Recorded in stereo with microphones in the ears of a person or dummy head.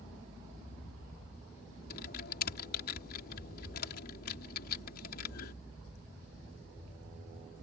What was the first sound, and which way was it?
Typing on a keyboard, 55° left (ahead or behind).